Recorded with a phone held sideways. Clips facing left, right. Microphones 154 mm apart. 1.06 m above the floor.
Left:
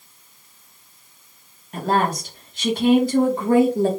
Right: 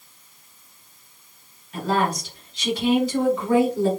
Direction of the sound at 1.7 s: 50° left (ahead or behind).